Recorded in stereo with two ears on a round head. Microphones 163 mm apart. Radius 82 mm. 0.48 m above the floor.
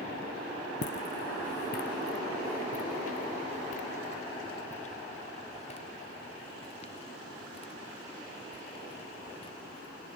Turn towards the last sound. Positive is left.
turn(degrees=30)  # may be behind; listen again after turning